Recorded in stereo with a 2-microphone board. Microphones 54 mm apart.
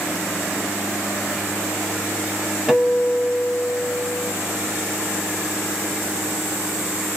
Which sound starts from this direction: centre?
A guitar, at 2.7 s.